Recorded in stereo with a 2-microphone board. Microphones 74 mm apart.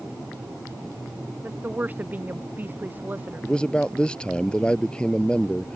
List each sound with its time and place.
1.4 s a woman speaking: 25° right (ahead or behind)
3.4 s a man speaking: 10° left (ahead or behind)